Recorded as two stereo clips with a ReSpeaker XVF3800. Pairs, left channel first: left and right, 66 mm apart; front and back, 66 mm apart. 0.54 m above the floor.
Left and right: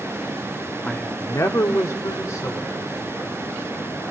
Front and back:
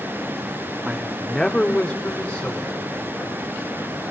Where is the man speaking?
145° left, 0.6 m; by 3.0 s 65° left, 2.5 m.